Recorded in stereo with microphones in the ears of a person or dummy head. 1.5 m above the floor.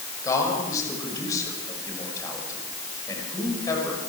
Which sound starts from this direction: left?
A man speaking, at 0.2 s.